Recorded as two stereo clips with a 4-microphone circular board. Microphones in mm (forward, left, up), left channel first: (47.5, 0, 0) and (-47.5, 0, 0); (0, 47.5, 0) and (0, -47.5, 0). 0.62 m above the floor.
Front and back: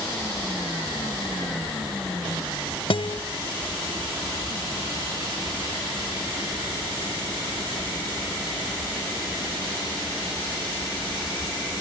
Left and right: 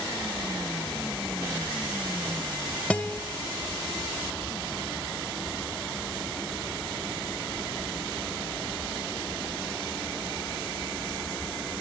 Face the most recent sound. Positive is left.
turn(degrees=15)